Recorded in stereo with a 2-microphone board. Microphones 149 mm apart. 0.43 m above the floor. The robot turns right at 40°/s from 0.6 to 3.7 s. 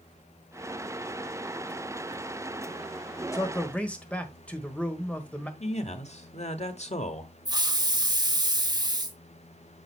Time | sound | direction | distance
3.3 | a man speaking | 20° left (ahead or behind) | 1.4 m
5.6 | a man speaking | 50° left (ahead or behind) | 1.1 m
7.5 | a hiss | 25° right (ahead or behind) | 1.1 m